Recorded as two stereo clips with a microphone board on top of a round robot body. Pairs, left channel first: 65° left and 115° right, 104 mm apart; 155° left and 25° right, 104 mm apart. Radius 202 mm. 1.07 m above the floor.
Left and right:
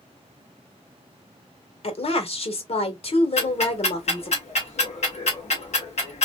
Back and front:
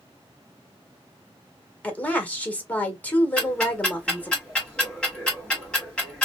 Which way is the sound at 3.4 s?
75° left.